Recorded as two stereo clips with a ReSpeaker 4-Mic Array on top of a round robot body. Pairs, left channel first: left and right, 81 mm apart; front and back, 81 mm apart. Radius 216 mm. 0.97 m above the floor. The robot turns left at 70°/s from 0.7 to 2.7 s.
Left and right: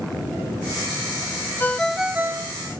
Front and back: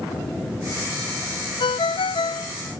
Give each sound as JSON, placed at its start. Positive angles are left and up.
{"t": 1.6, "sound": "a ringtone", "azimuth_deg": 20}